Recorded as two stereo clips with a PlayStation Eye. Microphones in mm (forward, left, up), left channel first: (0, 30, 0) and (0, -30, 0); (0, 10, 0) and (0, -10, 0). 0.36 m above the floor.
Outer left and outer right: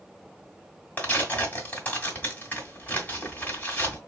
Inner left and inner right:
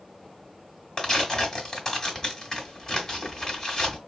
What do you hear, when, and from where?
1.0 s tearing paper: 30° left (ahead or behind), 1.6 m